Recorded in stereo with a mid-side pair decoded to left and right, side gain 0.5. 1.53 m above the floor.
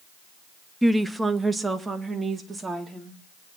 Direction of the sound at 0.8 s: 5° right.